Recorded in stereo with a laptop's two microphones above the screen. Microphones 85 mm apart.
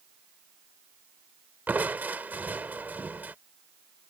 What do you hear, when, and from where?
1.7 s crushing: 20° right (ahead or behind)